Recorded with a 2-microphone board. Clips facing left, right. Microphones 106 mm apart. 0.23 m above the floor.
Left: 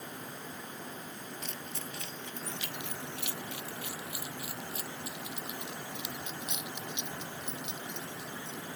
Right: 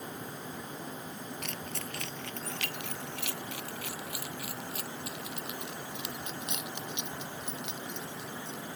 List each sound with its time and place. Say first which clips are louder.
1.4 s keys jangling: right 2 dB; 75° right (ahead or behind); by 8.6 s 80° right